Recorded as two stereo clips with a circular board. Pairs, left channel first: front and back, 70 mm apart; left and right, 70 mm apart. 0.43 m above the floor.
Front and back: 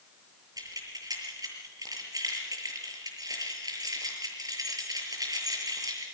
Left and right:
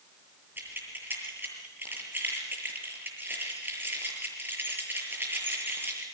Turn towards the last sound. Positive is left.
turn(degrees=-150)